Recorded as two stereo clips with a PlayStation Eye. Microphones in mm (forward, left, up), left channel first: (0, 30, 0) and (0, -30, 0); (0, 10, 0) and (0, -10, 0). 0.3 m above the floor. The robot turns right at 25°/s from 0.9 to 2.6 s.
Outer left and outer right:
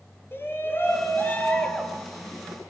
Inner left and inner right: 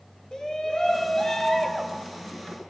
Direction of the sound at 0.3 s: 140° left.